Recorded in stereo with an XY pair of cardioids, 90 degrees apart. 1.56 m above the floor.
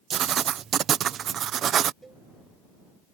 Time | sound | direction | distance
0.1 | writing | 70° right | ?
2.0 | a cowbell | 25° right | ?